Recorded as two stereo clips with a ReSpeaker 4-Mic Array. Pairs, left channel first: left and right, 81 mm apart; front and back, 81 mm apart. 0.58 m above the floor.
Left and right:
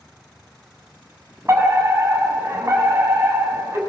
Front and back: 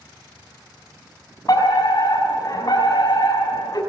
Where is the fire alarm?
35° right, 7 m.